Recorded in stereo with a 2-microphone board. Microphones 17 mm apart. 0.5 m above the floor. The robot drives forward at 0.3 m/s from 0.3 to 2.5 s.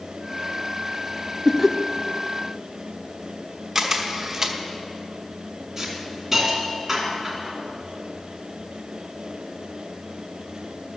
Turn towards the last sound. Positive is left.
turn(degrees=-20)  # may be behind; listen again after turning